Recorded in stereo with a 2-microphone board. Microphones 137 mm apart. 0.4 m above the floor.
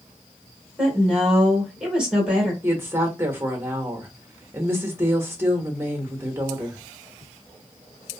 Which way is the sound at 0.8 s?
5° right (ahead or behind).